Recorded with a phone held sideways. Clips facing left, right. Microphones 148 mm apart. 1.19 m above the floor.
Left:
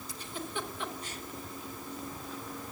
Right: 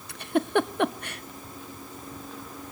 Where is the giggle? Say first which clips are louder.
Right 16 dB; 65° right (ahead or behind), 0.7 m.